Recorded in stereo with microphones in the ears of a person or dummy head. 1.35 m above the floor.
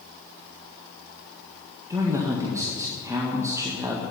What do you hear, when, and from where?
1.9 s a man speaking: 20° right (ahead or behind), 1.7 m